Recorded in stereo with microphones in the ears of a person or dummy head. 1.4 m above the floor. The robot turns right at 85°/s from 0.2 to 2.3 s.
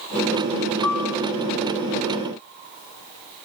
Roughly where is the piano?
Behind left.